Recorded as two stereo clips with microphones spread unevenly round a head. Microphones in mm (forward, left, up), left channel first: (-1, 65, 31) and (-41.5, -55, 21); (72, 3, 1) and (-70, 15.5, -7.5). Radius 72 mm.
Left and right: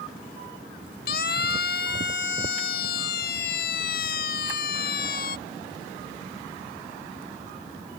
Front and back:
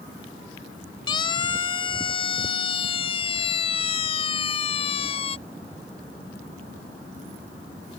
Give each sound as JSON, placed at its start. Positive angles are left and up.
{"t": 1.1, "sound": "a siren", "azimuth_deg": 55}